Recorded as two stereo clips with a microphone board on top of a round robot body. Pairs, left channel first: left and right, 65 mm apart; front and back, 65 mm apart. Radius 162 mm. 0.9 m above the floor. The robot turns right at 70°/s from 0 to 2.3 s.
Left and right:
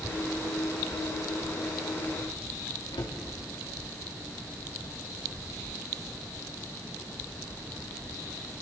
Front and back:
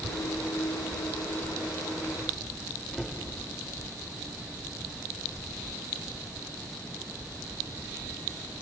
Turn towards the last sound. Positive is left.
turn(degrees=90)